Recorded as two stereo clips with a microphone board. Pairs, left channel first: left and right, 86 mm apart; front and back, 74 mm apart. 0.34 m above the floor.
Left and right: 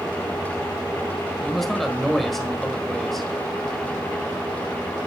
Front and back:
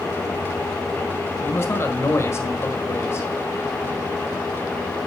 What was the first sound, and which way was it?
A man speaking, 5° left.